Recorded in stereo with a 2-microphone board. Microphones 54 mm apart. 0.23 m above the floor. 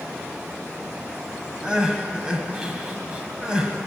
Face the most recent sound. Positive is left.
turn(degrees=-20)  # may be behind; listen again after turning